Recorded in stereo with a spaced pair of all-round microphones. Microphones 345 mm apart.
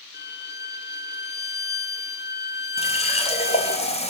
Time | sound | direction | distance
0.1 | a violin | 30° left (ahead or behind) | 0.7 m
2.8 | a running tap | 20° left (ahead or behind) | 1.1 m